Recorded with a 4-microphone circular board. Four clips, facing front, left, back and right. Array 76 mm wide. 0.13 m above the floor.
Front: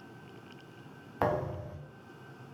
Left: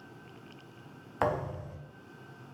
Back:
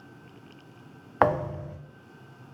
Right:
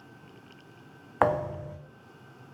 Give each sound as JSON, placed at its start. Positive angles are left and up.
{"t": 1.2, "sound": "a thud", "azimuth_deg": -155, "distance_m": 0.8}